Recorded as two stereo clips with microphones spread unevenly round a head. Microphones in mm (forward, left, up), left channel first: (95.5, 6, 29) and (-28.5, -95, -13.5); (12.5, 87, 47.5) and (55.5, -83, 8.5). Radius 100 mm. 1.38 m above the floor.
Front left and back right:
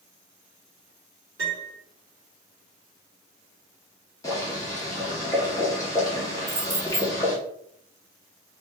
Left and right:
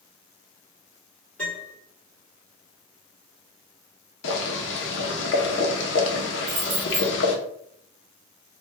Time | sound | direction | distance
1.4 | a piano | straight behind | 1.4 m
4.2 | boiling | 105° left | 0.6 m
6.5 | keys jangling | 70° right | 1.1 m